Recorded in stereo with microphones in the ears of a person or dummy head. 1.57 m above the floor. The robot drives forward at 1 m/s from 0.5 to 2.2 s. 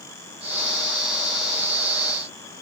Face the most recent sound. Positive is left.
No sound to turn to.